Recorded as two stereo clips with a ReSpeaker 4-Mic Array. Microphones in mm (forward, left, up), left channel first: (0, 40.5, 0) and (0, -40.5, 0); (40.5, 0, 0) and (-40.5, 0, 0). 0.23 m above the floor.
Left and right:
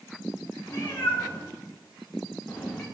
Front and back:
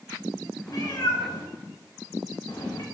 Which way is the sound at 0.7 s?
25° left.